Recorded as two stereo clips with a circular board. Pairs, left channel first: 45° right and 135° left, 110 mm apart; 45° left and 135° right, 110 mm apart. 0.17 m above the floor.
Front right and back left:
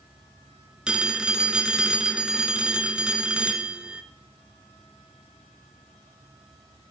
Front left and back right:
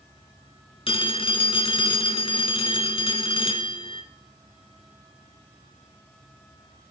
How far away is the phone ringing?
About 1.2 m.